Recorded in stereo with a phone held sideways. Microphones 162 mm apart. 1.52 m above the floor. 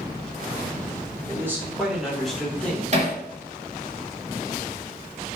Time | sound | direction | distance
1.3 | a man speaking | 15° right (ahead or behind) | 2.5 m
2.9 | hammering | 45° right (ahead or behind) | 2.5 m